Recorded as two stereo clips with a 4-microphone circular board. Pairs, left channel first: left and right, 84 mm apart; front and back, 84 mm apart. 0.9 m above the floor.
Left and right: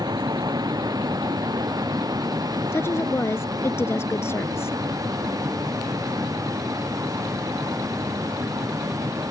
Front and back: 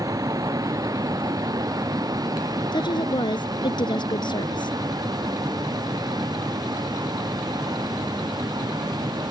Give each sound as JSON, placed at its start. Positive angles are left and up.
{"t": 0.0, "sound": "a vehicle", "azimuth_deg": -130}
{"t": 2.7, "sound": "a woman speaking", "azimuth_deg": 30}